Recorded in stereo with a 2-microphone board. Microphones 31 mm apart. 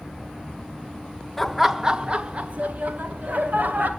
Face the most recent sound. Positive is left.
turn(degrees=-65)  # may be behind; listen again after turning